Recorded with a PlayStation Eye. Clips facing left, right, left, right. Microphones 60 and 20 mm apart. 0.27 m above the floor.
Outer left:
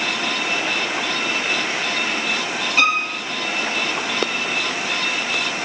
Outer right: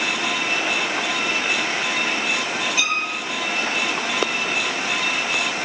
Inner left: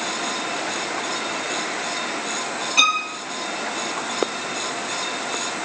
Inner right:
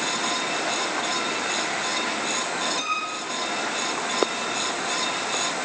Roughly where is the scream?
No scream in this recording.